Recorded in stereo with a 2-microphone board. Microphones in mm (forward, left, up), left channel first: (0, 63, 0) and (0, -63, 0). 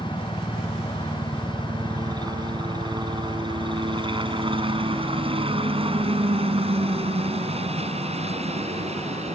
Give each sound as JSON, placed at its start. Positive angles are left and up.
{"t": 0.0, "sound": "a helicopter", "side_deg": -25}